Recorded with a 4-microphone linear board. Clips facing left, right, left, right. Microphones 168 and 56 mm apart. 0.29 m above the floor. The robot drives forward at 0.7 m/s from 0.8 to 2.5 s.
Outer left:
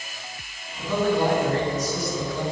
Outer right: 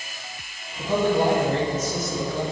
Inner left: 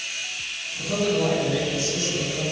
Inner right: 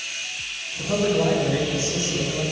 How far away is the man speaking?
About 1.7 m.